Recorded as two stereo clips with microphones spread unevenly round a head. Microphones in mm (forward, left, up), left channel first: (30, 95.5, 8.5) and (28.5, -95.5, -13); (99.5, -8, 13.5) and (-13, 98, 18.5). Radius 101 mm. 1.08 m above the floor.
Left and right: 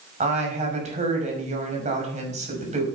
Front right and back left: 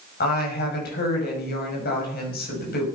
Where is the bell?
I don't hear a bell.